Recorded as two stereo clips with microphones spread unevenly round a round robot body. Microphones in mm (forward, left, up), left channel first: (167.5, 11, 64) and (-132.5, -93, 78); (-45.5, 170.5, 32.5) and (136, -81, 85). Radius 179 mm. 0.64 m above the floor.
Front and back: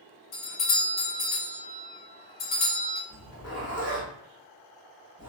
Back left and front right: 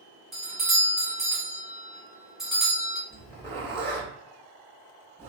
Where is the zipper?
55° left, 1.2 m.